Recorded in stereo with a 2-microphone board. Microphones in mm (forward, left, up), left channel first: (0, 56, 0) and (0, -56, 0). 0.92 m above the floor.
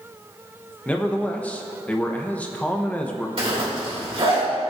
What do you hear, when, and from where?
0.8 s a man speaking: 10° left (ahead or behind), 0.7 m
3.4 s a zipper: 55° right (ahead or behind), 2.5 m